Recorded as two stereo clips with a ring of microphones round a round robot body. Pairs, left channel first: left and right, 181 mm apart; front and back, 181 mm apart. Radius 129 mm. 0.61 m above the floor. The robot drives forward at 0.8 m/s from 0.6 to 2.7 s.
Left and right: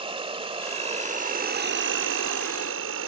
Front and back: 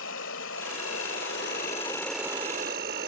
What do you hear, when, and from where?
0.0 s an insect: 30° right; by 3.1 s 125° right